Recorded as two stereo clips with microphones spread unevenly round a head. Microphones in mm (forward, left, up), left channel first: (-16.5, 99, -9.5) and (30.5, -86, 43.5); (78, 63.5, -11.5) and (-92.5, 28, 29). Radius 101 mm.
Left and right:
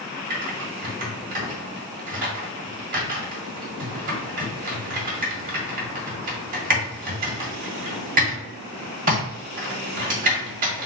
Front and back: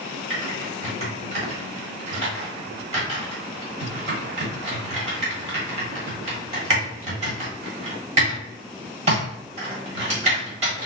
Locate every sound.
0.3 s typing on a keyboard: 115° right, 1.7 m